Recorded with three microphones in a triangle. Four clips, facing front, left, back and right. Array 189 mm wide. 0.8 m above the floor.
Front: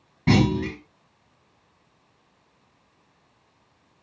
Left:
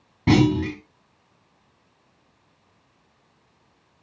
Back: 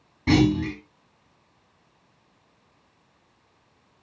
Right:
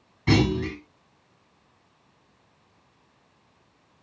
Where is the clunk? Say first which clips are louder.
Left 4 dB, back 1 dB; 60° left, 6 m.